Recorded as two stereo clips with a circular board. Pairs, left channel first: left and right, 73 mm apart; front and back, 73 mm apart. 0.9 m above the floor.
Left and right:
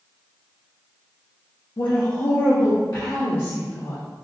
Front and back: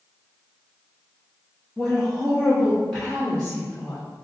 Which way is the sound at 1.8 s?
90° left.